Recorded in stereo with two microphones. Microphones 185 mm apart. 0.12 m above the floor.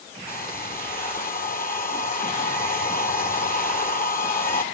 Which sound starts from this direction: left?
A hair dryer, at 0.3 s.